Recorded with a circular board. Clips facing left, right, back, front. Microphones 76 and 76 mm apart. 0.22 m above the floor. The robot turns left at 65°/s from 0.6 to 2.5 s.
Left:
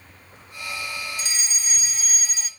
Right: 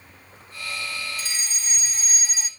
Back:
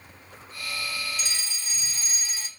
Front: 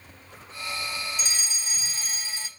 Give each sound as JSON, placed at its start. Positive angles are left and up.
{"t": 1.2, "sound": "a fire alarm", "azimuth_deg": 60, "distance_m": 2.0}